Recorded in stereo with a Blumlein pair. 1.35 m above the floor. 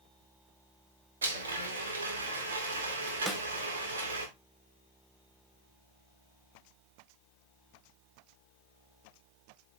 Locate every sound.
1.2 s a blender: 65° right, 2.5 m
3.3 s a snare drum: 10° right, 1.0 m